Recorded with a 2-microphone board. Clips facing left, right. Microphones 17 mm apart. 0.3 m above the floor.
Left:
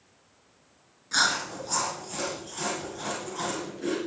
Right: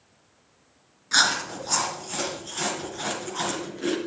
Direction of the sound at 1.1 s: 30° right (ahead or behind).